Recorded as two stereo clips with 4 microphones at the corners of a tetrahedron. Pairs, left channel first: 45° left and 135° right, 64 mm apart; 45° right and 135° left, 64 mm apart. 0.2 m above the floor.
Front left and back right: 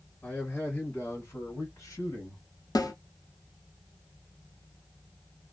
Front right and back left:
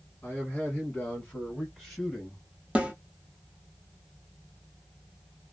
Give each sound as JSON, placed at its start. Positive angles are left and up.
{"t": 0.2, "sound": "a man speaking", "azimuth_deg": -15, "distance_m": 1.5}
{"t": 2.8, "sound": "a snare drum", "azimuth_deg": 65, "distance_m": 1.1}